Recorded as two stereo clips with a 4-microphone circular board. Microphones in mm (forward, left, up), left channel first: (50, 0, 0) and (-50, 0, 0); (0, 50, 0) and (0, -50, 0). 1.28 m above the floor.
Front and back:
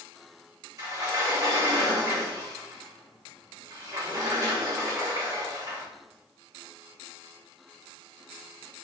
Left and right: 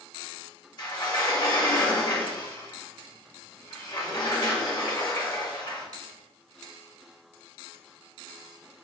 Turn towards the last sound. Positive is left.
turn(degrees=130)